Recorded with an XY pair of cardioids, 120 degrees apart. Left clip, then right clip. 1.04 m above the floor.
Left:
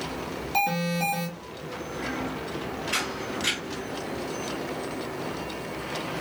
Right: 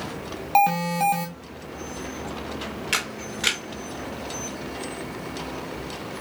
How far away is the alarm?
About 0.9 m.